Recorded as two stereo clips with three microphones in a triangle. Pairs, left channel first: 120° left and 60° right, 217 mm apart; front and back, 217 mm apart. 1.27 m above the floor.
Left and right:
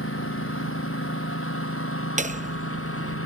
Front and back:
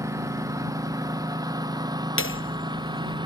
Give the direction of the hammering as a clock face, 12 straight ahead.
12 o'clock.